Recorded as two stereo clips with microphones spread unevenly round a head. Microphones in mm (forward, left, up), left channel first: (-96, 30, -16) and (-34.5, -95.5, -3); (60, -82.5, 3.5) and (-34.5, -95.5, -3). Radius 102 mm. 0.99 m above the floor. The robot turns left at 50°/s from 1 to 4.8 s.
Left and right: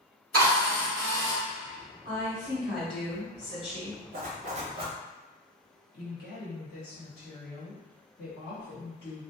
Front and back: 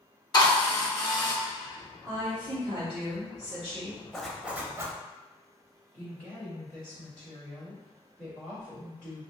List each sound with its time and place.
0.3 s a drill: 40° right, 1.1 m; by 1.4 s 55° right, 1.1 m
2.0 s a woman speaking: 110° right, 1.8 m; by 4.0 s 150° left, 1.8 m
4.1 s a zipper: 80° right, 0.8 m; by 5.0 s 115° right, 0.8 m
5.9 s a woman speaking: 90° left, 1.5 m